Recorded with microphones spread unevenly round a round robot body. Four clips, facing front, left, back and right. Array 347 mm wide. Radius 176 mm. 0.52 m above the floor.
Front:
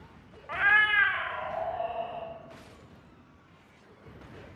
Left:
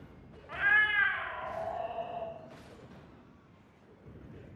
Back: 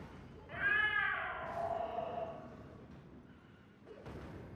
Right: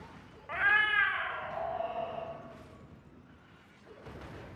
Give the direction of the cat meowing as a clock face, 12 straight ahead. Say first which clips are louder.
Even, front 10 dB; 1 o'clock.